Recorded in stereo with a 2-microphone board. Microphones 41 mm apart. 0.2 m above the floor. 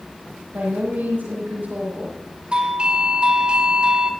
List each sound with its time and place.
0.5 s a woman speaking: 50° right (ahead or behind), 6 m
2.5 s a doorbell: 30° right (ahead or behind), 2.0 m